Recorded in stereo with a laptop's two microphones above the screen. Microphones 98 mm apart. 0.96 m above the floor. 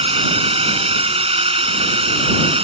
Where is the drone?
85° right; by 2.6 s 80° right.